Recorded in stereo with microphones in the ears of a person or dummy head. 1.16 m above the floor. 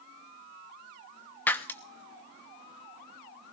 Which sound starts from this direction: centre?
Breaking glass, at 1.5 s.